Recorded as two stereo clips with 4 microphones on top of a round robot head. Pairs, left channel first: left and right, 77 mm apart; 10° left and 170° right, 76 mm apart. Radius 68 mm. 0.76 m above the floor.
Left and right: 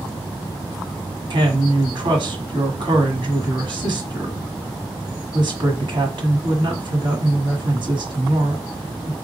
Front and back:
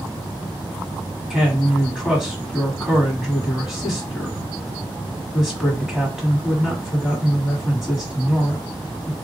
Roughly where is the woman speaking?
Right.